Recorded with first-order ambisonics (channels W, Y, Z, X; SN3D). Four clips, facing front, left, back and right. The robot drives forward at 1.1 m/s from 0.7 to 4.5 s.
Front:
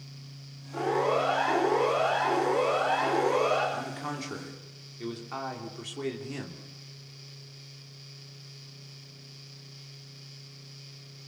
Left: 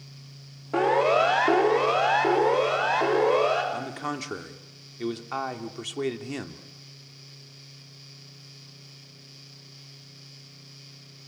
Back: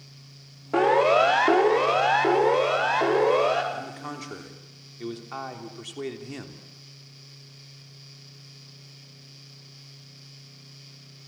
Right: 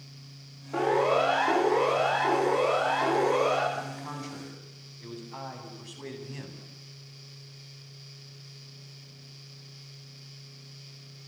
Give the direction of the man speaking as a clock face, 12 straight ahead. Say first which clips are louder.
Left 4 dB, front 1 dB; 9 o'clock.